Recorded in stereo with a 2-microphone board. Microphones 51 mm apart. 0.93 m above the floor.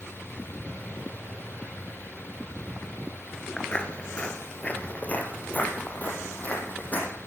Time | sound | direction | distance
3.6 | footsteps | 20° left (ahead or behind) | 0.9 m